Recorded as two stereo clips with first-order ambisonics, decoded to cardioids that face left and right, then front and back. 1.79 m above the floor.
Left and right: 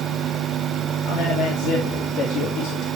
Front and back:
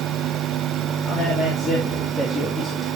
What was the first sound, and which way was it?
A man speaking, 80° left.